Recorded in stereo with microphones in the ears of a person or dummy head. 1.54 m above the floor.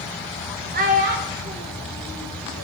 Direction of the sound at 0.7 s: 40° right (ahead or behind).